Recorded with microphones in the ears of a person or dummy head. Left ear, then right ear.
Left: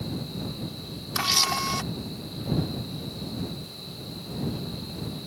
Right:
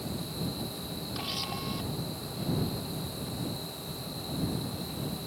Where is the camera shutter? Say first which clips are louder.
Left 13 dB; 55° left (ahead or behind).